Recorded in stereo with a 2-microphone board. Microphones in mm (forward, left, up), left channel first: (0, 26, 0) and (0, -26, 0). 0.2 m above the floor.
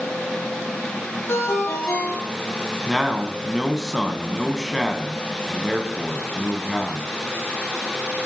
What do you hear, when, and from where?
1.3 s a ringtone: 55° left (ahead or behind), 3.5 m
2.9 s a man speaking: 5° right (ahead or behind), 1.3 m